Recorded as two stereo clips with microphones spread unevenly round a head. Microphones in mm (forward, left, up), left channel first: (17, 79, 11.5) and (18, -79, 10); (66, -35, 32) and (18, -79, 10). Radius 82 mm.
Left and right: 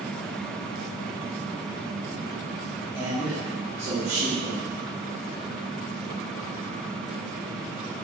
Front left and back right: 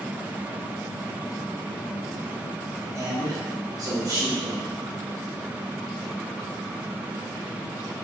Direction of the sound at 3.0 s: 165° right.